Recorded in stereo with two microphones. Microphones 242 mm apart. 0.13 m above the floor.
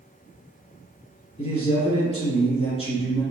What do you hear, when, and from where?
1.4 s a man speaking: 25° left (ahead or behind), 1.8 m